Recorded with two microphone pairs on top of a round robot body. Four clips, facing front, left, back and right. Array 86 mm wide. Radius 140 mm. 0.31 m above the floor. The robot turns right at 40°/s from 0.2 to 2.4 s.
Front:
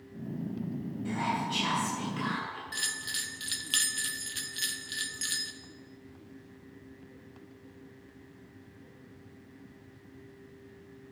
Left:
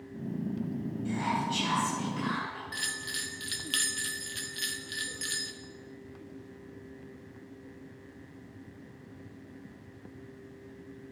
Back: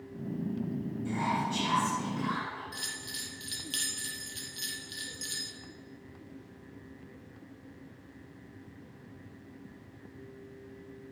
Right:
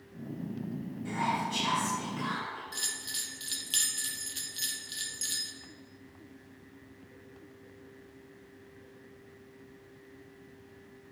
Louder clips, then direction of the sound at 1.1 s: Even, even; 30° right.